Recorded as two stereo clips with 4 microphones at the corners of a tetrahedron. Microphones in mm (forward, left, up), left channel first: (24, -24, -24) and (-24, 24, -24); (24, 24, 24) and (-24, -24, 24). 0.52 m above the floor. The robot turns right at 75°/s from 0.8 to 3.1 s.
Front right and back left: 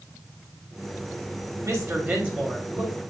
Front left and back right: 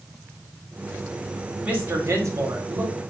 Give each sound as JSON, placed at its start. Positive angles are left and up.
{"t": 1.6, "sound": "a woman speaking", "azimuth_deg": 155, "distance_m": 1.9}